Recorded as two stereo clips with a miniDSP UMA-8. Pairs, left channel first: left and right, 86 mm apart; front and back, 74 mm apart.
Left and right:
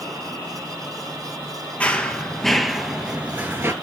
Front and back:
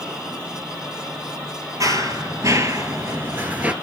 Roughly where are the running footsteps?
Behind.